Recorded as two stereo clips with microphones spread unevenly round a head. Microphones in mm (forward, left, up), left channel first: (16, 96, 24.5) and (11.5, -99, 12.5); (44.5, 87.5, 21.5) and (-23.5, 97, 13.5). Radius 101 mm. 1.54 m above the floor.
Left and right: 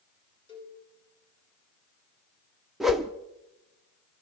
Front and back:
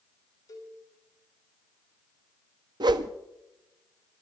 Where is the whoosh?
Straight behind, 0.7 m.